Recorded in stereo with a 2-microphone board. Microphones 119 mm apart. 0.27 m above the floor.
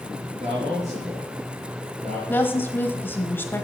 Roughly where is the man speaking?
Right.